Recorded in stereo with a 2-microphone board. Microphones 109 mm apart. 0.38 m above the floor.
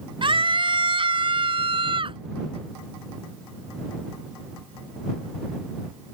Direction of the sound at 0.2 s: 50° right (ahead or behind).